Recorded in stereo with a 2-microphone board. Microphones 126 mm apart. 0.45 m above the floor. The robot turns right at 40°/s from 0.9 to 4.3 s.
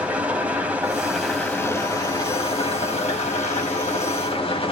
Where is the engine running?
15° right, 2 m; by 4.7 s 125° left, 2 m.